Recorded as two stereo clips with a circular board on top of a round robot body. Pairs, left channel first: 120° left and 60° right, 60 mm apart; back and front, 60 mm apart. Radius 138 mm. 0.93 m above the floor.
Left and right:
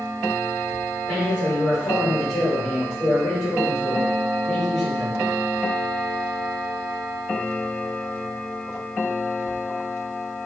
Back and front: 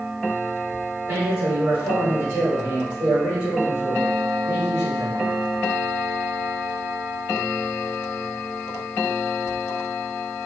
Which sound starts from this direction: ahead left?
A man speaking, at 1.1 s.